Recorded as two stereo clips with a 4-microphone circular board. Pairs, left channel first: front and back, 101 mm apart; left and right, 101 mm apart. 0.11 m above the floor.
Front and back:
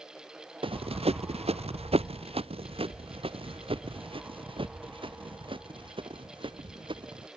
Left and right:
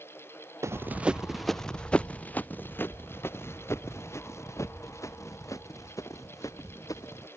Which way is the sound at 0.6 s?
150° right.